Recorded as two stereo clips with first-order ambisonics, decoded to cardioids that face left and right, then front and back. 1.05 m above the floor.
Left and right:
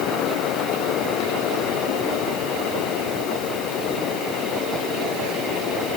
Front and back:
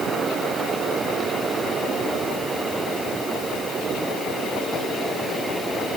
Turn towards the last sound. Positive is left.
No sound to turn to.